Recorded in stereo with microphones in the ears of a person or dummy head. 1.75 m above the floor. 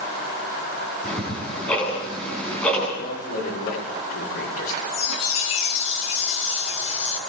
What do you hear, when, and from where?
1.0 s ticking: 15° left (ahead or behind), 9.5 m
3.0 s a man speaking: 75° left (ahead or behind), 6.5 m
4.9 s a chime: 35° left (ahead or behind), 1.7 m